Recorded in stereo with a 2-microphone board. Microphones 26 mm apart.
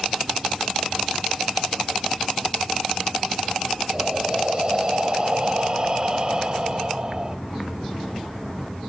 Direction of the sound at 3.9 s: 35° right (ahead or behind).